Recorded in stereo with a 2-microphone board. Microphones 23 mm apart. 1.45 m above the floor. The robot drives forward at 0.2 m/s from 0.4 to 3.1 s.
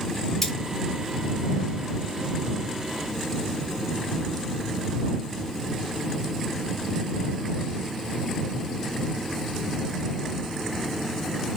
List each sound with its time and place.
0.4 s cutlery clinking: 5° left (ahead or behind), 2 m